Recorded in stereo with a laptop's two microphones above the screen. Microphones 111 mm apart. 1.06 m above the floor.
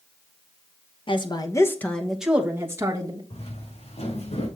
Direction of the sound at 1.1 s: 50° left (ahead or behind).